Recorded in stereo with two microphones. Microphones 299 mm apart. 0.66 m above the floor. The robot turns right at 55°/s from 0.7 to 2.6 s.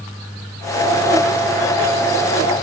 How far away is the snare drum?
I don't hear a snare drum.